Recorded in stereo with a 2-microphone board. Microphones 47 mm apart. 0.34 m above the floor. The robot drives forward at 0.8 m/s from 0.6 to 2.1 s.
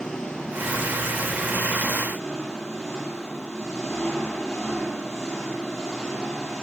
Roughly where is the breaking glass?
No breaking glass in this recording.